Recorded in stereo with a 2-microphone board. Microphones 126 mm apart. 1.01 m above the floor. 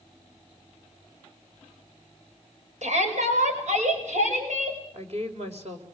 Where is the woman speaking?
55° right (ahead or behind), 4.5 m.